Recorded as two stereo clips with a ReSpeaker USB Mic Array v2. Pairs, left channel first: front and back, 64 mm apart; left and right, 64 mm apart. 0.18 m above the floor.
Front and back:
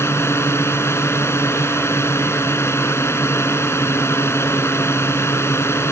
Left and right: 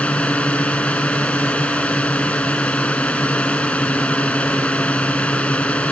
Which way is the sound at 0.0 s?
25° left.